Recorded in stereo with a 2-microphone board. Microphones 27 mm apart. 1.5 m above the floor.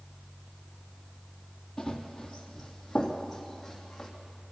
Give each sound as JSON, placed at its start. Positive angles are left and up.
{"t": 1.8, "sound": "running footsteps", "side_deg": 20, "distance_m": 2.5}